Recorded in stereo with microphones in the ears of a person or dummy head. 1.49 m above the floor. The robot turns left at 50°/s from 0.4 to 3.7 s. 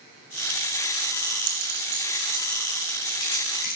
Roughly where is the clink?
Right.